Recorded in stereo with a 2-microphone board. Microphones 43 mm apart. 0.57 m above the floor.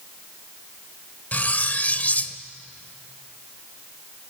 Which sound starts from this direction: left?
Cutlery clinking, at 1.3 s.